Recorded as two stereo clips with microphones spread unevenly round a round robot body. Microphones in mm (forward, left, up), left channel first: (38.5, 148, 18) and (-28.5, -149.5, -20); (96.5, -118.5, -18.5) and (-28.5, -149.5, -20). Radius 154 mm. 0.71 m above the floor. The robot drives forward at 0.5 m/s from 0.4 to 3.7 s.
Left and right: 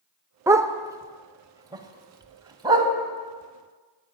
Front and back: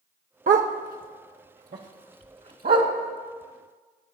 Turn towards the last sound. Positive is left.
turn(degrees=180)